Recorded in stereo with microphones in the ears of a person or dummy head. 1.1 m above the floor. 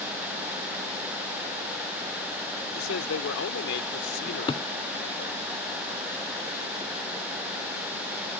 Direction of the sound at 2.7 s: 80° left.